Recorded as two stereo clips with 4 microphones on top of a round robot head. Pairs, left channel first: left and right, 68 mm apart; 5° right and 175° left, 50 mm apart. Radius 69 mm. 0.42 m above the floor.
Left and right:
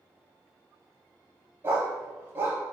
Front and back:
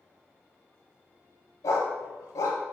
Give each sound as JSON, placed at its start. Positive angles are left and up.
{"t": 1.6, "sound": "a dog barking", "azimuth_deg": -30, "distance_m": 0.8}